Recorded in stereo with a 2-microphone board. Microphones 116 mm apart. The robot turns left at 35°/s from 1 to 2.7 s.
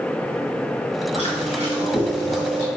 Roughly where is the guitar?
No guitar in this recording.